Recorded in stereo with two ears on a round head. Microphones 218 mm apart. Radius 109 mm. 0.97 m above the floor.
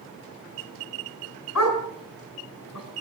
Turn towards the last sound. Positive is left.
turn(degrees=80)